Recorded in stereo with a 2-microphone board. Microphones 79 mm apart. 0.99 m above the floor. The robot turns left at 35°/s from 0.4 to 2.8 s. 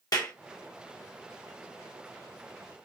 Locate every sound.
0.1 s a clap: 60° left (ahead or behind), 1.0 m